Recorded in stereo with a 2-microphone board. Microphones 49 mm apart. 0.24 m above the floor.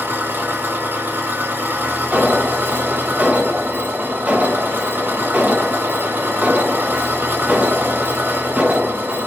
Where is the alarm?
30° right (ahead or behind), 1.0 m.